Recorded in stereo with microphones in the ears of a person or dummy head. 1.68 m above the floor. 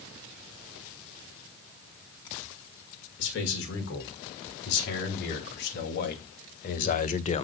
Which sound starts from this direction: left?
A man speaking, at 3.2 s.